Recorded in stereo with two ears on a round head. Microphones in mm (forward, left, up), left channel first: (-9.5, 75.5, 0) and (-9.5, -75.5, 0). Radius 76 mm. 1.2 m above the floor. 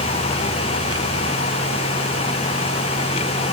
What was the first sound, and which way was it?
Only background noise.